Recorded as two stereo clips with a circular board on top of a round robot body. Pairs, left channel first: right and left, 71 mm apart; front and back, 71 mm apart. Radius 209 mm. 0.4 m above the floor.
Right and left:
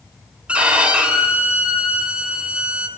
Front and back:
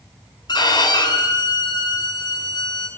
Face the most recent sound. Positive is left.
turn(degrees=15)